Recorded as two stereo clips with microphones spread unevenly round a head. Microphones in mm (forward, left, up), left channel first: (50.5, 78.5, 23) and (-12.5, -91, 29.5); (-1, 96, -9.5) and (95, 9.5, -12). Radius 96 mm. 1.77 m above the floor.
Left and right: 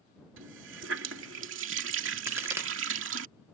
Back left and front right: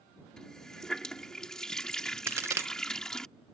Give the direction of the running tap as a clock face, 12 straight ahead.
5 o'clock.